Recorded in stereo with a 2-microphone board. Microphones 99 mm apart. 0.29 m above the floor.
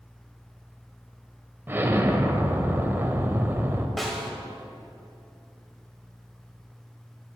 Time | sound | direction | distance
1.7 | an explosion | 20° right (ahead or behind) | 0.6 m
4.0 | a snare drum | centre (ahead or behind) | 1.1 m